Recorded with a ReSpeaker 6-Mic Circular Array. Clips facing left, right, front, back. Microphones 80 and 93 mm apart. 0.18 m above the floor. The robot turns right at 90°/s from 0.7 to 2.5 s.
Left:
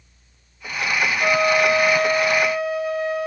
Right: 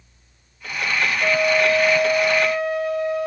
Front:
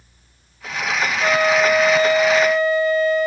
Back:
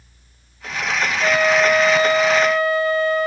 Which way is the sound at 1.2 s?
45° left.